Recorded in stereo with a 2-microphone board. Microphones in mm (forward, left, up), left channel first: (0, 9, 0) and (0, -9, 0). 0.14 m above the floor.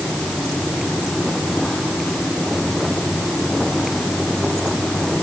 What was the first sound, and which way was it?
Only background noise.